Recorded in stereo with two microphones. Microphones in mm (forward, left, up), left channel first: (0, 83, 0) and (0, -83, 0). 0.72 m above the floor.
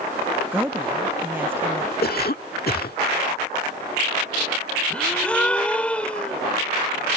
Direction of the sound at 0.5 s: 10° right (ahead or behind).